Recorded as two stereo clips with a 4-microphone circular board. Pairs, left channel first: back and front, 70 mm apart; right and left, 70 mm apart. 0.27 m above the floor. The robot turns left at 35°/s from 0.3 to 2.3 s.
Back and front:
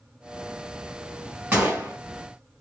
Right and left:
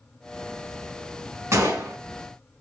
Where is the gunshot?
65° left, 2.5 m; by 2.0 s 50° left, 2.5 m.